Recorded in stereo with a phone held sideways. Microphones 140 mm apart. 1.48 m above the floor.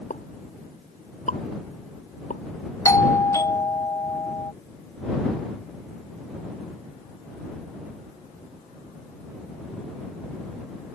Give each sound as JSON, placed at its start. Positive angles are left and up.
{"t": 0.1, "sound": "a pop", "side_deg": 65}
{"t": 2.9, "sound": "a doorbell", "side_deg": 25}